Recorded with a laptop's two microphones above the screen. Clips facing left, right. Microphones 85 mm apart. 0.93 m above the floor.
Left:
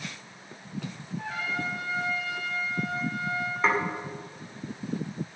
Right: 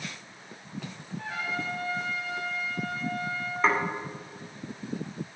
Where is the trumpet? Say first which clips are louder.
Left 1 dB; 20° left (ahead or behind), 5.5 m.